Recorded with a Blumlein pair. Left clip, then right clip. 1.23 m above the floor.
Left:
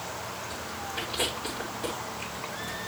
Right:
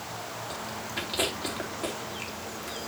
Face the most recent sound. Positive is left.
turn(degrees=-65)